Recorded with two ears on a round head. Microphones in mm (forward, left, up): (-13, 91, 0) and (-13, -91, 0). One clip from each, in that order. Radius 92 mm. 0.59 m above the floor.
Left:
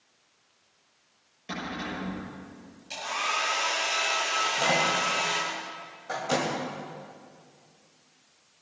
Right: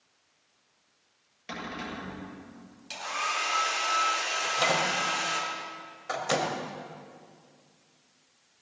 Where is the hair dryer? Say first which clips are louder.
Left 2 dB; 45° right (ahead or behind), 5 m.